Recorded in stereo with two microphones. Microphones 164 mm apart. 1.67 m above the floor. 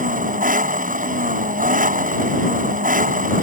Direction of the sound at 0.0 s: 55° right (ahead or behind).